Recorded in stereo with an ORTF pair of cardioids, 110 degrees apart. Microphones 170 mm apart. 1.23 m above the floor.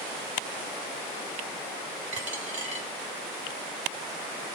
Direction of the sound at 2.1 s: 45° right.